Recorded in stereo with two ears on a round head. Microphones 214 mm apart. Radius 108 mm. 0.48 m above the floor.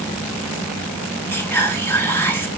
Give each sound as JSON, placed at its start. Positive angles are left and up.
{"t": 1.3, "sound": "whispering", "side_deg": 10, "distance_m": 1.7}